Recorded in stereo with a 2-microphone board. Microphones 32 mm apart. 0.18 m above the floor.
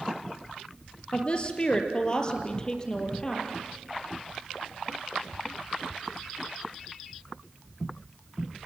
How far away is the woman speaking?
About 3.5 m.